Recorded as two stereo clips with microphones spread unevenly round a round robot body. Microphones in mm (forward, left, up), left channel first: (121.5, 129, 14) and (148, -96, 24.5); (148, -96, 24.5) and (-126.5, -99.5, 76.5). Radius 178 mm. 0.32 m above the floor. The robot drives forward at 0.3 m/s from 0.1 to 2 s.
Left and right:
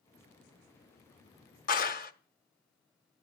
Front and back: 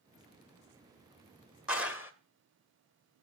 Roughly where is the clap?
Left.